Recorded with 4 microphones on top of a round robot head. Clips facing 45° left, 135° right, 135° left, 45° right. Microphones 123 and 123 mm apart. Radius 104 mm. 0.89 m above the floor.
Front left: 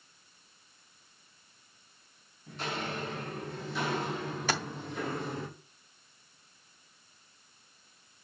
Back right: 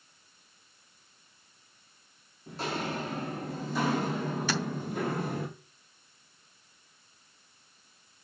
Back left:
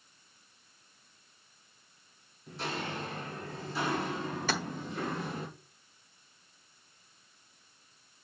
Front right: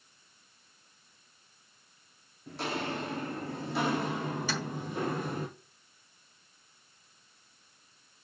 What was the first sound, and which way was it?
Footsteps, 75° right.